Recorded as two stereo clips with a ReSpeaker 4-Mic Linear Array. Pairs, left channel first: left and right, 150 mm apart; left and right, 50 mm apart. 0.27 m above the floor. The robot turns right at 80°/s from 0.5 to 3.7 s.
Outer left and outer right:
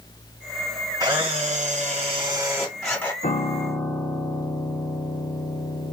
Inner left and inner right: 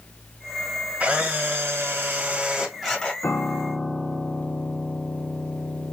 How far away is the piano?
About 0.7 m.